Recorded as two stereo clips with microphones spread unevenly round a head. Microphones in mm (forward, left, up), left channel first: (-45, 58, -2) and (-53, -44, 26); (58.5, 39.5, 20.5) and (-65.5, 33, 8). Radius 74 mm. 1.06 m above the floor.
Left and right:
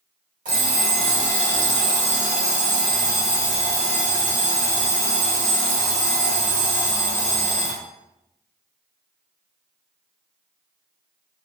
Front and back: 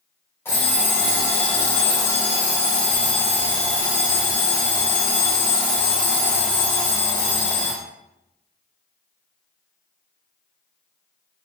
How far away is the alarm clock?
About 1.3 m.